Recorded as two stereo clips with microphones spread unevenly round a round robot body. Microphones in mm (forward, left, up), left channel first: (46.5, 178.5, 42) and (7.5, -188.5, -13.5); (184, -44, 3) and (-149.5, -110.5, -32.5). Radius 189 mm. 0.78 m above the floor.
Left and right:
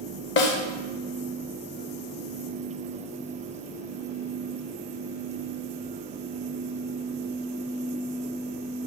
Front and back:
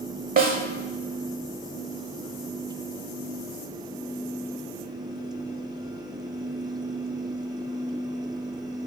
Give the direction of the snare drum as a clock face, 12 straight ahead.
8 o'clock.